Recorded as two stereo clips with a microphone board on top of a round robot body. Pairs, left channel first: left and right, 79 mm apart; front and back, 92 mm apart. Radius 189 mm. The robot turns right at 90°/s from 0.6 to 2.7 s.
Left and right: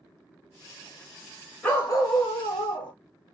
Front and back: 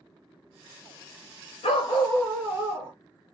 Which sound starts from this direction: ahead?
A dog barking, at 1.6 s.